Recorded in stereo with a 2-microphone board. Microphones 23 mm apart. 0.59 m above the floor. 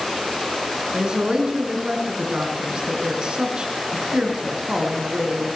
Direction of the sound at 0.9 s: 40° right (ahead or behind).